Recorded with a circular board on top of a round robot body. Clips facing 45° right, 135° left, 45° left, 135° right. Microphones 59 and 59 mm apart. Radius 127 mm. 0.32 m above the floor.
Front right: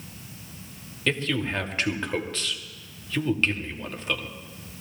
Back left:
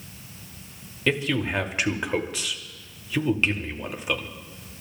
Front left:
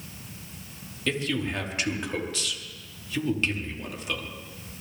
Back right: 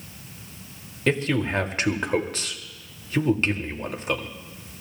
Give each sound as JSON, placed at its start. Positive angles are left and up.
{"t": 1.1, "sound": "a man speaking", "azimuth_deg": -150, "distance_m": 1.8}